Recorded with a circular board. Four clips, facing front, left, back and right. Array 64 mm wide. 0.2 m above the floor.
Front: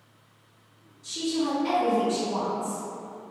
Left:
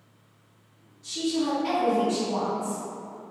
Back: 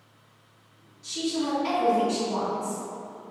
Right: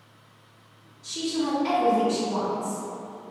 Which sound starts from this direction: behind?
A woman speaking, at 1.0 s.